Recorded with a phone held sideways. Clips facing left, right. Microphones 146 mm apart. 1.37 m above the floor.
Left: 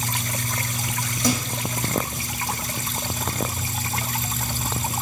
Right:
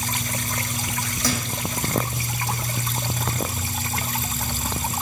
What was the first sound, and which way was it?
A thud, 20° left (ahead or behind).